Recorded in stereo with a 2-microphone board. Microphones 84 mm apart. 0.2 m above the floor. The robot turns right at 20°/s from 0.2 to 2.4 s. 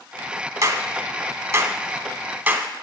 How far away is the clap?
About 0.9 m.